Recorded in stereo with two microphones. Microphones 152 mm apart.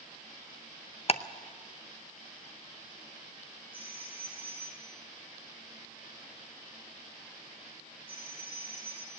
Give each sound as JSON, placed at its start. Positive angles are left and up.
{"t": 1.1, "sound": "ticking", "side_deg": 40, "distance_m": 0.7}
{"t": 3.7, "sound": "a phone ringing", "side_deg": 35, "distance_m": 5.5}